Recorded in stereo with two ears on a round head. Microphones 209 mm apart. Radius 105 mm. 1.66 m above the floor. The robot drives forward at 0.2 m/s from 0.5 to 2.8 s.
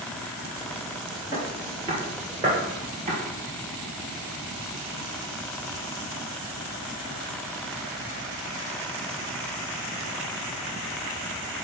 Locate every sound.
1.3 s footsteps: 15° right (ahead or behind), 1.8 m; by 3.2 s 35° right (ahead or behind), 2 m